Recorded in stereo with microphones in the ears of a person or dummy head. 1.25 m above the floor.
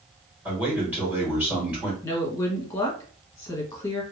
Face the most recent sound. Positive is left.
turn(degrees=15)  # may be behind; listen again after turning